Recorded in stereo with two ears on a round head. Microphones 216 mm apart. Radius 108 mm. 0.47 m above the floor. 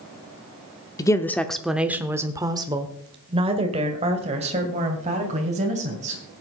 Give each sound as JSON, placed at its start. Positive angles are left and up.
{"t": 1.0, "sound": "a woman speaking", "side_deg": 15, "distance_m": 0.7}